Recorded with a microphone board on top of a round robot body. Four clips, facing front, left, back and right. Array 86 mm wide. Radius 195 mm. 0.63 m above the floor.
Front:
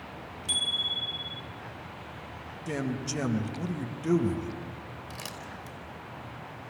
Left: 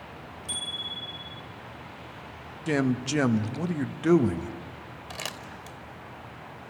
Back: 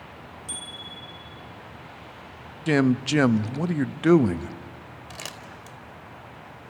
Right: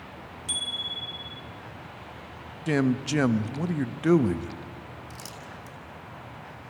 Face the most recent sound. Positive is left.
turn(degrees=115)